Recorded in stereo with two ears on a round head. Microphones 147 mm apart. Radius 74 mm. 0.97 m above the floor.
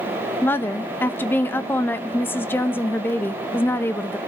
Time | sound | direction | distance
0.4 | a woman speaking | 15° left (ahead or behind) | 0.8 m